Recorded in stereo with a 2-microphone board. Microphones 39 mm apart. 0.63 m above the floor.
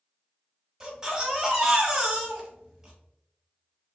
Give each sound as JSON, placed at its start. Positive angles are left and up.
{"t": 0.8, "sound": "a baby crying", "side_deg": -15, "distance_m": 1.1}